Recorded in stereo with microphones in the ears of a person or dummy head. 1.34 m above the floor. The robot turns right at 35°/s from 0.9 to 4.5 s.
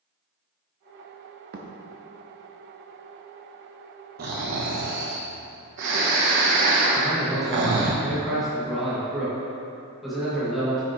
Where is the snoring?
45° right (ahead or behind), 1.0 m; by 7.9 s 55° right (ahead or behind), 1.0 m.